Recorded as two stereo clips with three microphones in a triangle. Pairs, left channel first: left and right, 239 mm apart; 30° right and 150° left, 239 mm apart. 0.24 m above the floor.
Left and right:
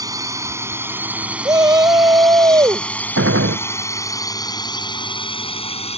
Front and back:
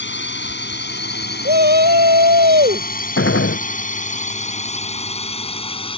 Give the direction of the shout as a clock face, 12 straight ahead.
5 o'clock.